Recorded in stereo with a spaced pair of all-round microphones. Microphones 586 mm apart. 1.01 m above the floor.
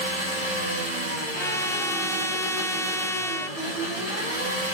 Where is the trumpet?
5° left (ahead or behind), 0.5 m.